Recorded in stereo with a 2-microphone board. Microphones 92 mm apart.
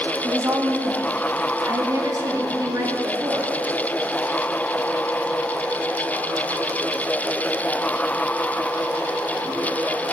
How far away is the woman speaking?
About 1.3 m.